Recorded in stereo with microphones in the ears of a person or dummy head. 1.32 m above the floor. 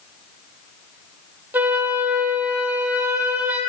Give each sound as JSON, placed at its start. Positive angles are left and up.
{"t": 1.5, "sound": "a flute", "side_deg": -10, "distance_m": 0.5}